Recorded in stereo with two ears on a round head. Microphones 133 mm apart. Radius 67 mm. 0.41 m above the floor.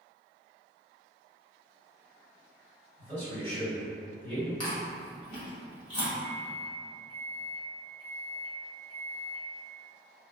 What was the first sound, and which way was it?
A man speaking, 10° left (ahead or behind).